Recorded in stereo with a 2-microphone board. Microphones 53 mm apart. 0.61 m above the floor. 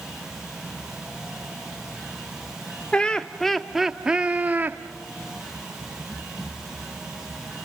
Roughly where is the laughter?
Centre.